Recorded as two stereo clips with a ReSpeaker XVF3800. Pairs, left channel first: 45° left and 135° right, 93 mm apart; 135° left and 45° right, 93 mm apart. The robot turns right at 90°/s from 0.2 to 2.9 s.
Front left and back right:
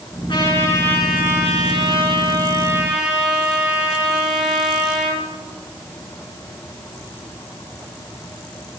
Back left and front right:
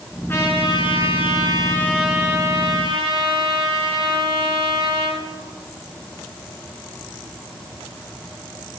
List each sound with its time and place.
0.3 s a trumpet: 70° left, 5 m; by 5.2 s 55° right, 5 m